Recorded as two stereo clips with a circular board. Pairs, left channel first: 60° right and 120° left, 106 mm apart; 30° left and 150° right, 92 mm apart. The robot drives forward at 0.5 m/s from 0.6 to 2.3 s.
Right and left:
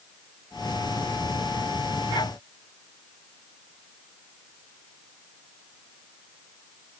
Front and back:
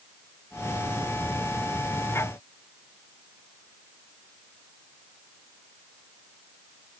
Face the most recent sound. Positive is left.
No sound to turn to.